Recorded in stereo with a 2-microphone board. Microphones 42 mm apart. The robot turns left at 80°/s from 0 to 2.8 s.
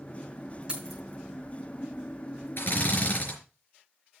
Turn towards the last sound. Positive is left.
turn(degrees=40)  # may be behind; listen again after turning